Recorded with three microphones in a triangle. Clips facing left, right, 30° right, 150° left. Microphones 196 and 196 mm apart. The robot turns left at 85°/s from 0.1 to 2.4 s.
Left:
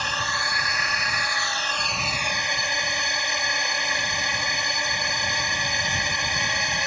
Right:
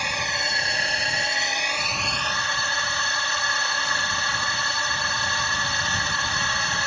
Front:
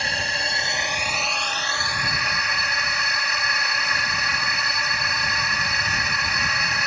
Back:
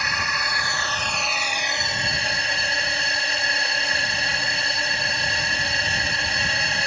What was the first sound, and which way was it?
A drone, 20° right.